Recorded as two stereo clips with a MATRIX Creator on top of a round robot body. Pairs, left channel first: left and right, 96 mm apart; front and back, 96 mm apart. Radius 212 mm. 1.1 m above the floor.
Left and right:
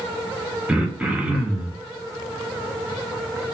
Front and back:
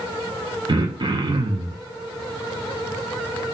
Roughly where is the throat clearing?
Behind.